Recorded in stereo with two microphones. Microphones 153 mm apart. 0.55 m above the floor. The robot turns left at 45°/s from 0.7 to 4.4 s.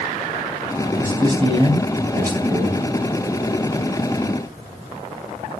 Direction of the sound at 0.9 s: 10° right.